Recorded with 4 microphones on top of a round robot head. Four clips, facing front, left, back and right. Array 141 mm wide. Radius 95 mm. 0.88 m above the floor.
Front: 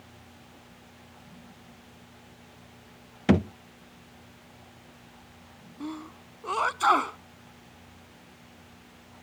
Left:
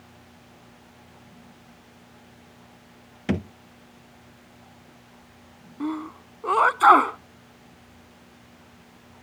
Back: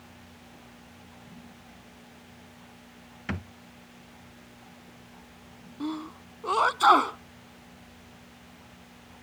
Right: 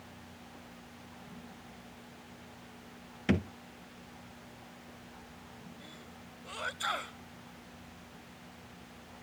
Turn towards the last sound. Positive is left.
turn(degrees=105)